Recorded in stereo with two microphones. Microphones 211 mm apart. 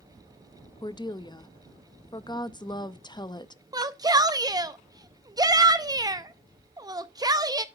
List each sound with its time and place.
0.8 s a woman speaking: 20° left (ahead or behind), 0.5 m
3.7 s a shout: 20° right (ahead or behind), 0.5 m